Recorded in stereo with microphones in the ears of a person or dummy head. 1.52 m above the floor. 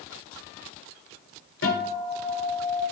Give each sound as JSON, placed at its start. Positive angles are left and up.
{"t": 1.6, "sound": "a guitar", "side_deg": 90, "distance_m": 3.5}